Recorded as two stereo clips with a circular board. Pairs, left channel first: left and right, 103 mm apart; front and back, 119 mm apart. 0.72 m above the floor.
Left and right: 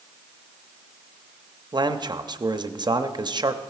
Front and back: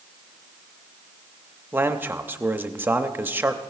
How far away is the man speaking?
About 0.7 m.